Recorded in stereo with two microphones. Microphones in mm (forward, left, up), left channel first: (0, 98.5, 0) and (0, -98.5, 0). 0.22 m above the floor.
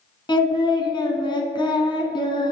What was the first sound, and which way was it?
Singing, 25° left (ahead or behind).